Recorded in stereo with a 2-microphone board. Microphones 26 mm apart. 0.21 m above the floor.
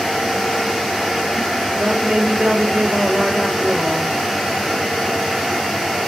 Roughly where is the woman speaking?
Right.